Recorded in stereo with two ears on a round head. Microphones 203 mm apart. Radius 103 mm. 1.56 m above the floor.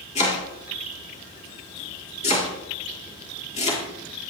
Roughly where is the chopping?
Left.